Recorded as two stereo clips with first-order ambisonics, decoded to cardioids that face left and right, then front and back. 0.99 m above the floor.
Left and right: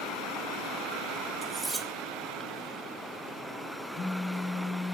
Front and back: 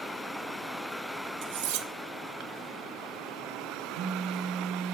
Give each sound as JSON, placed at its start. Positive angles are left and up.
{"t": 1.4, "sound": "cutlery clinking", "azimuth_deg": -170, "distance_m": 0.8}
{"t": 4.0, "sound": "a phone buzzing", "azimuth_deg": 150, "distance_m": 2.5}